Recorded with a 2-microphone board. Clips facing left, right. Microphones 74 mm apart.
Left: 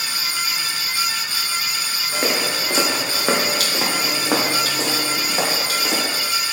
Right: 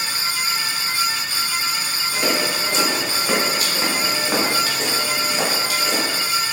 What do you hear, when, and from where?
2.1 s footsteps: 30° left (ahead or behind), 2.5 m; by 6.1 s 65° left (ahead or behind), 5 m